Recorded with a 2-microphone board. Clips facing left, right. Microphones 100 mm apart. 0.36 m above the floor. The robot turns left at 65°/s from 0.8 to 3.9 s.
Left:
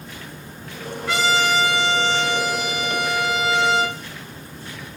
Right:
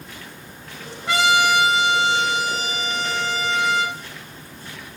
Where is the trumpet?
15° right (ahead or behind), 1.2 m; by 4.0 s 15° left (ahead or behind), 1.2 m.